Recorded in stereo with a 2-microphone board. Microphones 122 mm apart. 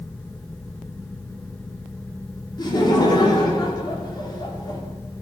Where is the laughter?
35° left (ahead or behind), 3.5 m.